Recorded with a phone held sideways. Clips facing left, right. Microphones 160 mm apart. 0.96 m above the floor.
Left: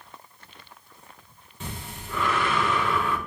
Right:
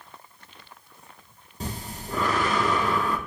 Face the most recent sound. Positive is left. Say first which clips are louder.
# right 3 dB
turn(degrees=-40)  # may be behind; listen again after turning